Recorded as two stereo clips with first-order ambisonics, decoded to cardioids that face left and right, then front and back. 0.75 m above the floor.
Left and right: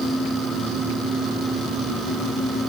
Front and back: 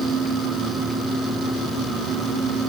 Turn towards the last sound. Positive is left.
No sound to turn to.